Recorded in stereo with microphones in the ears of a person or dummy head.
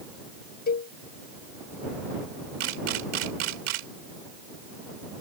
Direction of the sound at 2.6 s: 70° right (ahead or behind).